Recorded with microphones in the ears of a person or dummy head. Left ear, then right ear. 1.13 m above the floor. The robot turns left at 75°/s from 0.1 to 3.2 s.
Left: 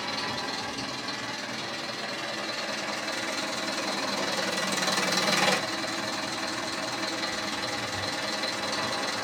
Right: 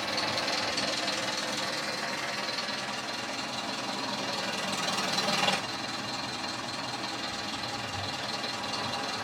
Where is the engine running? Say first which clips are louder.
Right 1 dB; 5° right, 1.3 m; by 9.2 s 125° left, 1.3 m.